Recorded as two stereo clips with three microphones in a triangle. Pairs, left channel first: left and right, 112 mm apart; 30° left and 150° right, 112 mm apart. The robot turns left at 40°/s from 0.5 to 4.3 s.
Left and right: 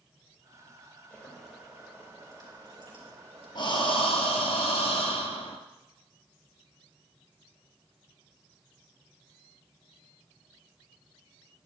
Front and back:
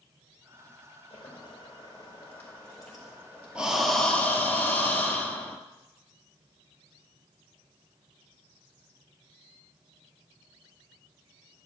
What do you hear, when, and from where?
1.1 s boiling: 10° left, 4 m; by 4.5 s 115° right, 4 m
3.5 s breathing: 130° left, 1.5 m; by 5.6 s 100° left, 1.5 m